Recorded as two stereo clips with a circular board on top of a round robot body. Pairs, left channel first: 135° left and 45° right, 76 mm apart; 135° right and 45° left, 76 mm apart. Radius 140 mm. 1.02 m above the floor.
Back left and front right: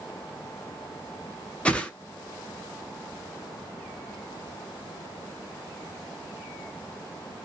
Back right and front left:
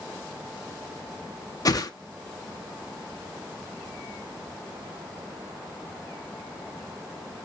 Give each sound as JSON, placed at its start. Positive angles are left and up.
{"t": 1.6, "sound": "a whoosh", "azimuth_deg": -155, "distance_m": 0.9}